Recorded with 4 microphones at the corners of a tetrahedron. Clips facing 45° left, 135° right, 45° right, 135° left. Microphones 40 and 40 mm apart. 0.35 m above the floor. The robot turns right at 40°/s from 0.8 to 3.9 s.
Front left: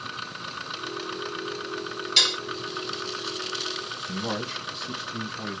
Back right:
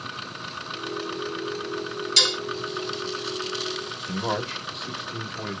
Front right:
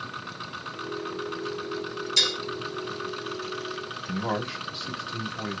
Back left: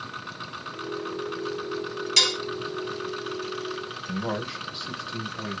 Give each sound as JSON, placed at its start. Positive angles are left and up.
{"t": 2.2, "sound": "dishes clattering", "azimuth_deg": 120, "distance_m": 1.5}
{"t": 4.1, "sound": "a man speaking", "azimuth_deg": -130, "distance_m": 1.1}